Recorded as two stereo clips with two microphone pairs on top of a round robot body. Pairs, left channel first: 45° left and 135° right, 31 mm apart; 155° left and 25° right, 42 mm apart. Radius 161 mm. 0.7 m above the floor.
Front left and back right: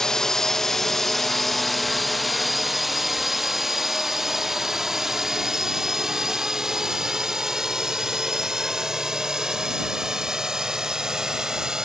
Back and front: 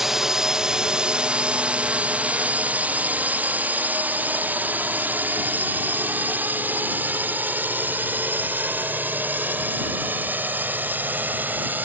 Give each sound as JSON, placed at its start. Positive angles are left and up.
{"t": 0.0, "sound": "a drone", "azimuth_deg": 35}